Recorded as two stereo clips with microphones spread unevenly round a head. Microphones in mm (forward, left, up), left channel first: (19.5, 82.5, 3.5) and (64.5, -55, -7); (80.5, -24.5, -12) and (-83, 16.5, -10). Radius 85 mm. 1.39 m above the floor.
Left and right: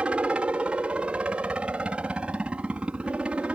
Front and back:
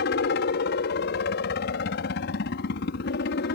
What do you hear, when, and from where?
0.0 s a helicopter: 10° left